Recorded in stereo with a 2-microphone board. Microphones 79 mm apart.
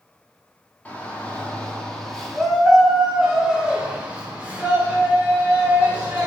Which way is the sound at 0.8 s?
20° left (ahead or behind).